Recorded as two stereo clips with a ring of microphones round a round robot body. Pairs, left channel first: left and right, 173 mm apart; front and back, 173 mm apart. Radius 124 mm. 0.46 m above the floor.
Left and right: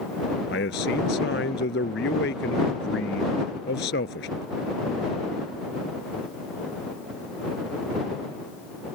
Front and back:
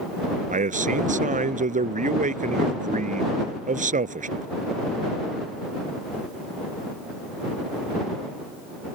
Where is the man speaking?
135° left.